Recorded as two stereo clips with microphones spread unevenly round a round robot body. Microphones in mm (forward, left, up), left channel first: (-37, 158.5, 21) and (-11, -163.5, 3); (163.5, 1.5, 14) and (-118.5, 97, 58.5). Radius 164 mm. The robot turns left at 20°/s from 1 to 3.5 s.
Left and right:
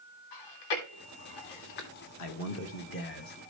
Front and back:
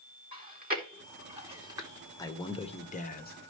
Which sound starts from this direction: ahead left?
A man speaking, at 2.2 s.